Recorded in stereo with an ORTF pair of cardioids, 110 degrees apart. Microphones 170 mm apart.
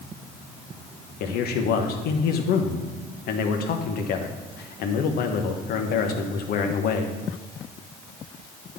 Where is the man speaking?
65° left, 1.0 m.